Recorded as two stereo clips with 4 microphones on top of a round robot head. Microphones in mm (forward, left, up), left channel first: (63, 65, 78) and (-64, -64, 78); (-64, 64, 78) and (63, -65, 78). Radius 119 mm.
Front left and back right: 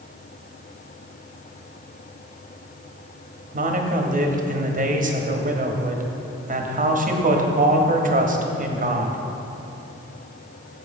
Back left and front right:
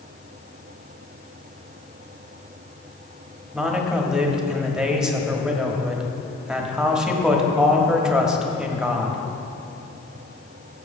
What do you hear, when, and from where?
3.5 s a man speaking: 130° right, 1.4 m